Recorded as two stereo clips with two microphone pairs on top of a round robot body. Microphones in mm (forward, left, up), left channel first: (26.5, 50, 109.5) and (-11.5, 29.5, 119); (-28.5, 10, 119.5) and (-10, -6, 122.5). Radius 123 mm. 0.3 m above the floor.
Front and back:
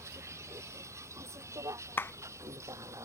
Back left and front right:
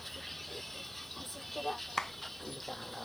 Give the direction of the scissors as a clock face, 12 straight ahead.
I don't hear scissors.